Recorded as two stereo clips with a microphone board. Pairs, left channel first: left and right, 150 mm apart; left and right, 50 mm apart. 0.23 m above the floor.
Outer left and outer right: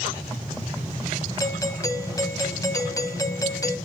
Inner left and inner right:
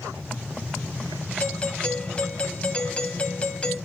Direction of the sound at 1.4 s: 25° left (ahead or behind).